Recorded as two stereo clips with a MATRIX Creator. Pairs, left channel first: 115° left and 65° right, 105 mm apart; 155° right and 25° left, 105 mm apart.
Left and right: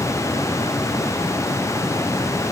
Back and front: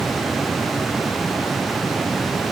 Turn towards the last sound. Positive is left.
No sound to turn to.